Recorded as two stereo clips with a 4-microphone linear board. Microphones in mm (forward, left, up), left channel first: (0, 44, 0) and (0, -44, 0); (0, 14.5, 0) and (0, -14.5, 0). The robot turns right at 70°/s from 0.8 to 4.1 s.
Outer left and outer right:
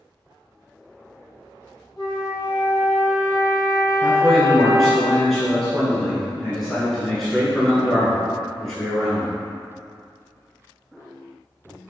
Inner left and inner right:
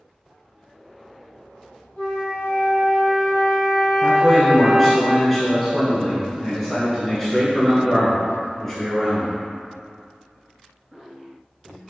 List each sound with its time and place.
2.0 s a flute: 65° left, 1.5 m; by 5.0 s 145° right, 1.5 m
4.0 s a man speaking: centre (ahead or behind), 1.3 m; by 9.3 s 5° left (ahead or behind), 1.3 m